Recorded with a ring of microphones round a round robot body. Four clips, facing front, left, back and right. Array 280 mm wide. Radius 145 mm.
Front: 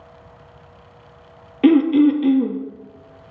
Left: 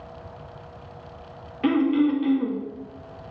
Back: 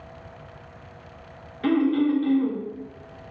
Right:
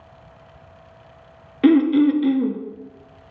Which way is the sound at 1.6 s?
30° right.